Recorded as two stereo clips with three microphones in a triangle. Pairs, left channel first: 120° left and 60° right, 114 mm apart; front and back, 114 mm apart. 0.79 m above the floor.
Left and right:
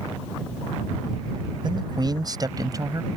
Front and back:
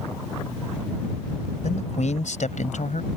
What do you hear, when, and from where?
1.6 s a man speaking: 10° right; by 3.1 s straight ahead